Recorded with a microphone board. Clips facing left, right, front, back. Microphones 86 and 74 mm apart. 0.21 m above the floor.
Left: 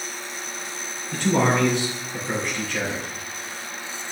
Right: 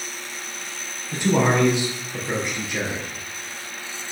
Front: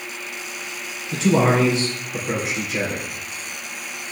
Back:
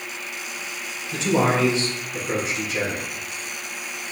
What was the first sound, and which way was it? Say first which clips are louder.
A man speaking: right 1 dB, front 3 dB; 15° right.